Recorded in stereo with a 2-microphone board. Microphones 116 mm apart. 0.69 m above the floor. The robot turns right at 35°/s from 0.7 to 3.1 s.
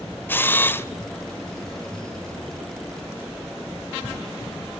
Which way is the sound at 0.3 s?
15° left (ahead or behind).